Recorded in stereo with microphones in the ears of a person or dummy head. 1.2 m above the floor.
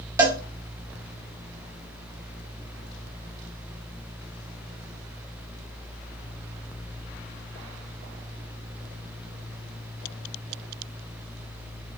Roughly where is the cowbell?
Centre.